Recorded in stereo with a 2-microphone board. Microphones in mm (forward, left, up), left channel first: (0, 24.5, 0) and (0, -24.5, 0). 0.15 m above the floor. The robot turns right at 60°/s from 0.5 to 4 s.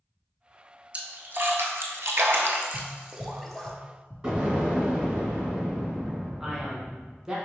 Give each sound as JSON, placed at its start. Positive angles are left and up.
{"t": 0.9, "sound": "a splash", "side_deg": -35, "distance_m": 0.6}
{"t": 2.7, "sound": "tapping", "side_deg": 15, "distance_m": 1.6}
{"t": 4.2, "sound": "an explosion", "side_deg": -20, "distance_m": 1.8}
{"t": 6.4, "sound": "a man speaking", "side_deg": -15, "distance_m": 1.1}